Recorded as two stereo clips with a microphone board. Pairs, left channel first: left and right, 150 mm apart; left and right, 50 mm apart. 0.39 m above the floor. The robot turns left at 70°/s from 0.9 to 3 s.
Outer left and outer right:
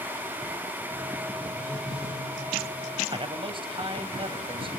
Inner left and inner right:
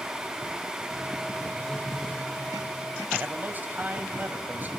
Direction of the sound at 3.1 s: 35° right (ahead or behind).